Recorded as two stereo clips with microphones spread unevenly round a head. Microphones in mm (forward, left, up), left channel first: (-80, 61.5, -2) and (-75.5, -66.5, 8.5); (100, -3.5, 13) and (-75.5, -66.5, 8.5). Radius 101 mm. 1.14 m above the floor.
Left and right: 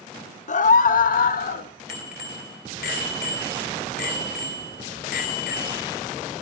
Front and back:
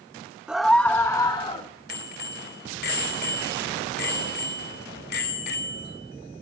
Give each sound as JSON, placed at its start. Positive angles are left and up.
{"t": 0.5, "sound": "a scream", "azimuth_deg": 115, "distance_m": 1.2}
{"t": 1.9, "sound": "a bicycle bell", "azimuth_deg": 70, "distance_m": 3.0}